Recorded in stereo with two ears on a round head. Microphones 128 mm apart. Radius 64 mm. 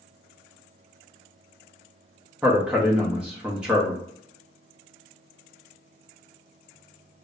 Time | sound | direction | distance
2.4 | a man speaking | 5° right (ahead or behind) | 0.8 m